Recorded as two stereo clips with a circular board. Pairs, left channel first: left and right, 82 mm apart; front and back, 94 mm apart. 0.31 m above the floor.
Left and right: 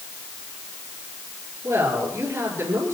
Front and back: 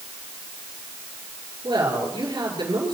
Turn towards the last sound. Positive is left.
turn(degrees=-150)